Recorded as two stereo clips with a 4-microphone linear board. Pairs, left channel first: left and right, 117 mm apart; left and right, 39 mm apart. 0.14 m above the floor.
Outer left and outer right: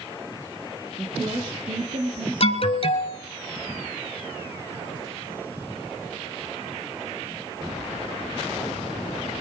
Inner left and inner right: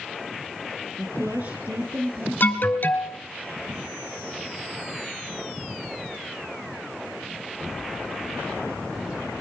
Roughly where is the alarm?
Left.